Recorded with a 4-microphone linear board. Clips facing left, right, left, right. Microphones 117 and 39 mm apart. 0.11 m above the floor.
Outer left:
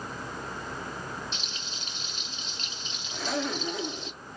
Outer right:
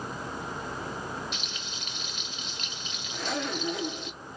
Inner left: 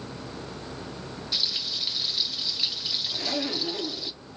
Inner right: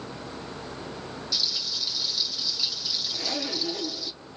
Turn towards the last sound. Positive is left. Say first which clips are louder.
# outer left 1 dB, inner left 2 dB
turn(degrees=0)  # may be behind; listen again after turning